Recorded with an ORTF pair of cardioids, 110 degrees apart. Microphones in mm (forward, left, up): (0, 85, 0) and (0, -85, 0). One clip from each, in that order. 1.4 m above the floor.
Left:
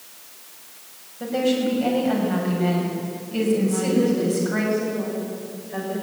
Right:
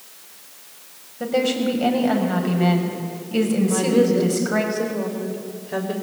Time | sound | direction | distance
1.2 | a woman speaking | 35° right | 6.5 m
3.6 | a woman speaking | 55° right | 7 m